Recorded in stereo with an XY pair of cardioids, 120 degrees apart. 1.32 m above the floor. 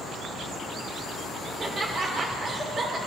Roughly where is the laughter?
Ahead right.